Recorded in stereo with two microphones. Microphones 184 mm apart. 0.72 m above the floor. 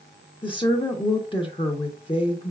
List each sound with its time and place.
0.4 s a woman speaking: 25° left (ahead or behind), 0.7 m